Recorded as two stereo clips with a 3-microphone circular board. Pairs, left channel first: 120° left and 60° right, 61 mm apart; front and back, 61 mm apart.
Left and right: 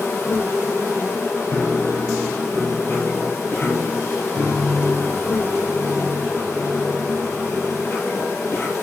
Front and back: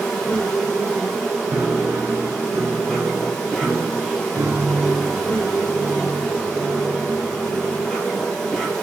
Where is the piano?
165° left, 2 m.